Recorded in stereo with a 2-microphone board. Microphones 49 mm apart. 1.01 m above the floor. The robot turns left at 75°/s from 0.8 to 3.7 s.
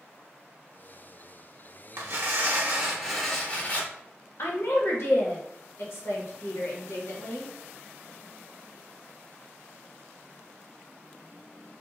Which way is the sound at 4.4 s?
60° left (ahead or behind).